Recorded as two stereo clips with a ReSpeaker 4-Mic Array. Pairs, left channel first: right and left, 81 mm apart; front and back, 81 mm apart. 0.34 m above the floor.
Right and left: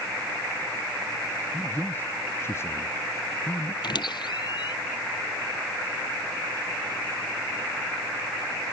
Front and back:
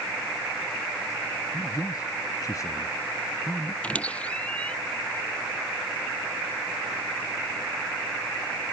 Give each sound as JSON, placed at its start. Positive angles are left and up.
{"t": 1.5, "sound": "a man speaking", "azimuth_deg": -25}
{"t": 3.8, "sound": "a squeak", "azimuth_deg": -75}